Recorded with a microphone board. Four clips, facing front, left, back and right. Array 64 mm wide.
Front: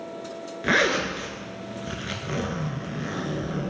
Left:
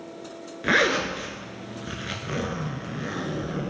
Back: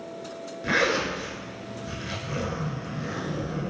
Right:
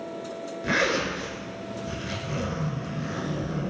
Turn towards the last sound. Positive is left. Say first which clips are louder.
# left 3 dB, front 2 dB
turn(degrees=55)